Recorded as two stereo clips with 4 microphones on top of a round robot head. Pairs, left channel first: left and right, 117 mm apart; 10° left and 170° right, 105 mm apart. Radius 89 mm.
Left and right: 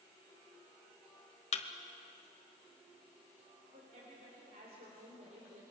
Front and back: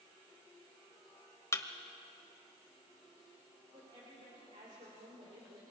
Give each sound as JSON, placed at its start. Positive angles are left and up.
{"t": 1.5, "sound": "a thud", "azimuth_deg": 70, "distance_m": 1.5}
{"t": 3.7, "sound": "a woman speaking", "azimuth_deg": -125, "distance_m": 3.5}